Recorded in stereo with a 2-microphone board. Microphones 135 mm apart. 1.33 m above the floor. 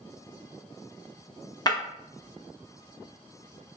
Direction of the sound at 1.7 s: 30° left (ahead or behind).